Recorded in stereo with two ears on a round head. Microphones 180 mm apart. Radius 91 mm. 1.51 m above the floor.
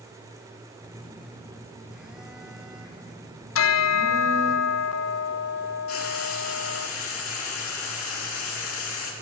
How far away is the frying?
About 3 m.